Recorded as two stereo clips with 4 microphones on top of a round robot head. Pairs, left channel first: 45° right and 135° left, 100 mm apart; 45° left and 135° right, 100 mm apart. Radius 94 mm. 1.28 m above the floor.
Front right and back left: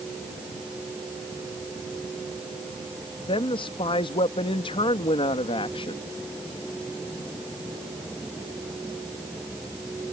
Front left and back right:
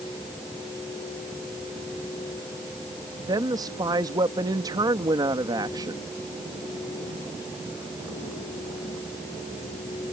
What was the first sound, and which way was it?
A woman speaking, 80° right.